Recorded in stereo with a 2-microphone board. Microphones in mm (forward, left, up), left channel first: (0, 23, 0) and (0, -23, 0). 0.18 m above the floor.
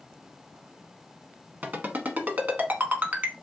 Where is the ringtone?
40° right (ahead or behind), 1.0 m.